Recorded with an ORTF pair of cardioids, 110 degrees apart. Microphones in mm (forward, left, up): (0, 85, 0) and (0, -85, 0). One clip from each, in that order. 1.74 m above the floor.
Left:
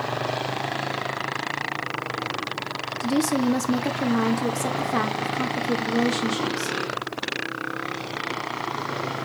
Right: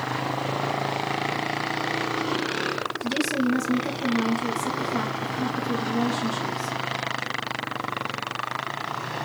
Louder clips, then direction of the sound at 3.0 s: Left 4 dB; 35° left.